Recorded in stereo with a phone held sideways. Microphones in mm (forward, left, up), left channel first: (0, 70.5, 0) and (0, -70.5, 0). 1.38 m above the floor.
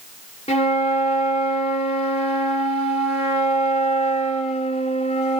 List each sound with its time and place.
0.5 s a flute: 45° left (ahead or behind), 1.0 m